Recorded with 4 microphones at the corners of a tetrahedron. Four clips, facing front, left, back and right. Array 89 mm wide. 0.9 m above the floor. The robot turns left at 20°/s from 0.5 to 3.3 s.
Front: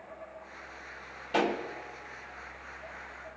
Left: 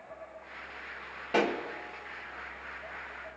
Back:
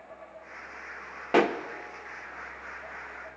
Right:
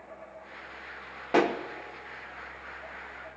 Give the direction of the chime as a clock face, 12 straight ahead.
I don't hear a chime.